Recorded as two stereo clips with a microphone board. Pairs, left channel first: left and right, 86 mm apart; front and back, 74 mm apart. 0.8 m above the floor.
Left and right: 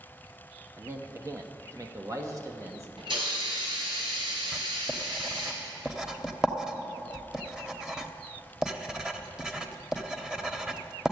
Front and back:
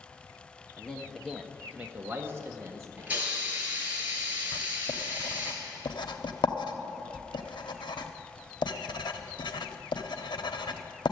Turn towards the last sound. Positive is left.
turn(degrees=-10)